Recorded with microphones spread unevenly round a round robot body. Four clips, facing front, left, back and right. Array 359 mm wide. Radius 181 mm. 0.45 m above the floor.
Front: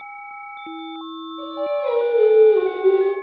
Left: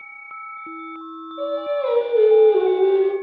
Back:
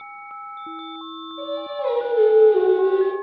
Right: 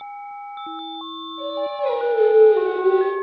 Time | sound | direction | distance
1.4 | singing | 135° left | 0.7 m